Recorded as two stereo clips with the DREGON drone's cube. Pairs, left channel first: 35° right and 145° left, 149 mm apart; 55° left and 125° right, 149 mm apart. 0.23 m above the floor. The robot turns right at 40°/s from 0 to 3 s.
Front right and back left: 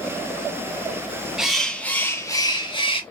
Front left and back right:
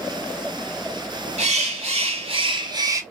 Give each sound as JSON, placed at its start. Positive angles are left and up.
{"t": 1.4, "sound": "a bird", "azimuth_deg": -130, "distance_m": 1.1}